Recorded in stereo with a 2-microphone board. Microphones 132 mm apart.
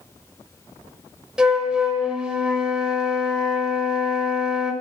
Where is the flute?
5° right (ahead or behind), 0.7 m.